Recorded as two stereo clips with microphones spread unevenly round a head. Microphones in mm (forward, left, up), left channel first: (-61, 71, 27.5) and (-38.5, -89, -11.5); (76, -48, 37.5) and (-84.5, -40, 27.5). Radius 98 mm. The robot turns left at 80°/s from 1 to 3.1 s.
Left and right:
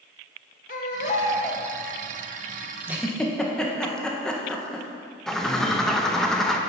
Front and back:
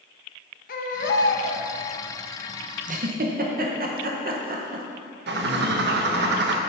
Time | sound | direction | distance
0.7 | a baby crying | 45° left | 1.0 m
2.9 | a giggle | 150° right | 1.5 m
5.3 | a bird | 175° right | 1.1 m